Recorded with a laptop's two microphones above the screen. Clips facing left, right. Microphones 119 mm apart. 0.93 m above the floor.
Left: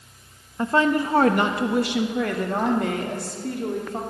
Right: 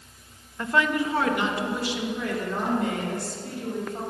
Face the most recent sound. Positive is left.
turn(degrees=75)  # may be behind; listen again after turning